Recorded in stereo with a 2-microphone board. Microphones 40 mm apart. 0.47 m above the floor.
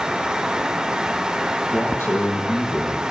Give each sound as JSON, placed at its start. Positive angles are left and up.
{"t": 1.7, "sound": "a man speaking", "side_deg": 75, "distance_m": 6.5}